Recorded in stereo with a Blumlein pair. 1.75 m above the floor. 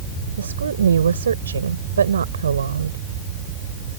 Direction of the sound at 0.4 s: 70° right.